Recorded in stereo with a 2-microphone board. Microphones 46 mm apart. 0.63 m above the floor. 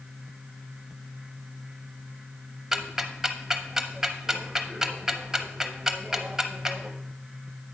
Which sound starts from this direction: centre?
Ticking, at 2.7 s.